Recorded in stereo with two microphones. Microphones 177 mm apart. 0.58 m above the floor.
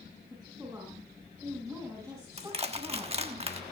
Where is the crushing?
35° right (ahead or behind), 1.3 m.